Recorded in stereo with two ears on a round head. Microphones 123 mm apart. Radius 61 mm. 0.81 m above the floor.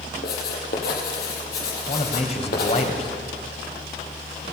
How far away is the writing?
About 6 m.